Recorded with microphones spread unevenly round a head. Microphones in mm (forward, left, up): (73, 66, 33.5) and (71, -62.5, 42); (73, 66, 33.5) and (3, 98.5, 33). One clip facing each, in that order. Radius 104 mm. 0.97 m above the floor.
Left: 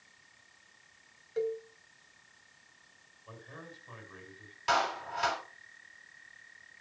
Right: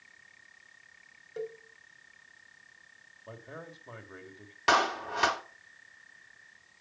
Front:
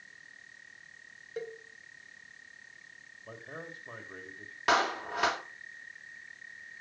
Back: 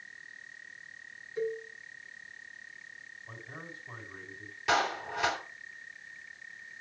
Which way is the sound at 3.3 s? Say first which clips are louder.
Right 4 dB, front 3 dB; 55° right.